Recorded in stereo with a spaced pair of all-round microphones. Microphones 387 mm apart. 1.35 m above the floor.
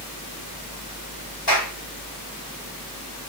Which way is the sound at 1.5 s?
75° left (ahead or behind).